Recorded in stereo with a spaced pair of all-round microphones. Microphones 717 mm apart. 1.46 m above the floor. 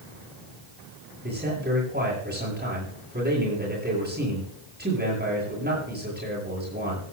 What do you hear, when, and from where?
1.2 s a man speaking: 15° right (ahead or behind), 10 m